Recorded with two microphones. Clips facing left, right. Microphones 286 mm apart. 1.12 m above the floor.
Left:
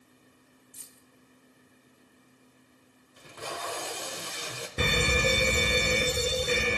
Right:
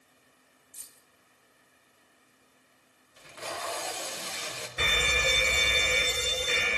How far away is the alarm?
About 0.6 m.